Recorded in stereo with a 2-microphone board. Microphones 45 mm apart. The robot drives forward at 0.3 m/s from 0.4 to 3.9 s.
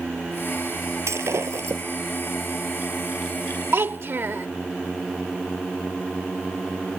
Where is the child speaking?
55° right (ahead or behind).